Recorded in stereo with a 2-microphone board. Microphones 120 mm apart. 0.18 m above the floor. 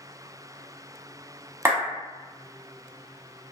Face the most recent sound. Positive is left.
turn(degrees=-20)  # may be behind; listen again after turning